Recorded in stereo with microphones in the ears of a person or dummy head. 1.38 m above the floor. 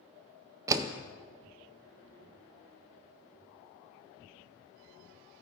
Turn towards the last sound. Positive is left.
turn(degrees=-15)  # may be behind; listen again after turning